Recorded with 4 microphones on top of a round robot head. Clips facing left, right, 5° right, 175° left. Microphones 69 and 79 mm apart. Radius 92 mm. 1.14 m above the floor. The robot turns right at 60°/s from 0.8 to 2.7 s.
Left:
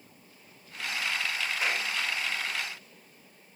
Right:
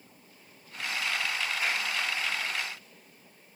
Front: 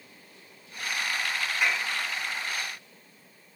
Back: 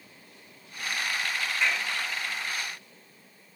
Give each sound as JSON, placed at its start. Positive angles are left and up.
{"t": 1.6, "sound": "a clap", "azimuth_deg": 75, "distance_m": 6.5}